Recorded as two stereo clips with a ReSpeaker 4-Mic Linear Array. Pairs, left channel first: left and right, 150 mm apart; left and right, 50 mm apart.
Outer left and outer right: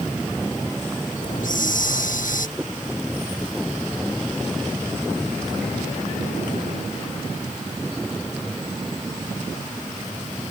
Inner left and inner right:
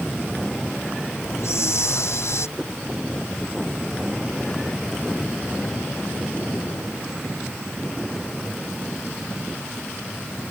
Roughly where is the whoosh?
Centre.